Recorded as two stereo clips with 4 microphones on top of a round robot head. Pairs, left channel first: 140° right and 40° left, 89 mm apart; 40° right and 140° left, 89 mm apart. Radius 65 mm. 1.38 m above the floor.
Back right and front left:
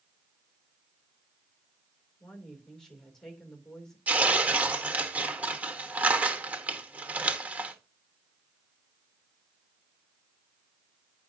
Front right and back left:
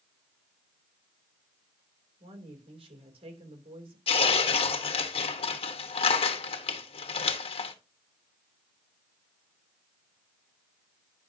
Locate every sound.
2.2 s a woman speaking: 135° left, 3 m
4.1 s tearing paper: 35° right, 1.2 m